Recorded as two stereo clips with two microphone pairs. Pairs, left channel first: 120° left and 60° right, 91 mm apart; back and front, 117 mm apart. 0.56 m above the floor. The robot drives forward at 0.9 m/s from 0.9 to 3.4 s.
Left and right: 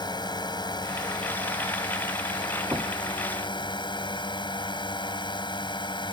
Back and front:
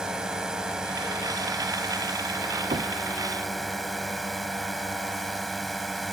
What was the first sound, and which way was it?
A drone, 85° left.